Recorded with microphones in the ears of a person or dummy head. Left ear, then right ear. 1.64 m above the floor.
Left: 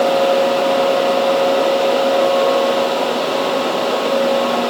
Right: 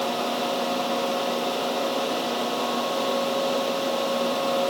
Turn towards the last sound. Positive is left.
No sound to turn to.